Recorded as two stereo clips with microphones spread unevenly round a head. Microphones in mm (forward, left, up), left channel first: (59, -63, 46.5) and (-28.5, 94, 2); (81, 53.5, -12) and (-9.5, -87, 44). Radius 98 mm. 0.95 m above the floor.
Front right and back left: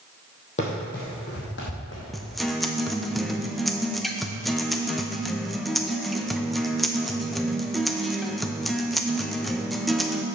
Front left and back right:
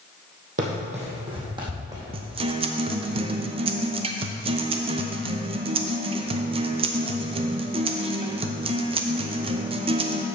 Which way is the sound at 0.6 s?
105° right.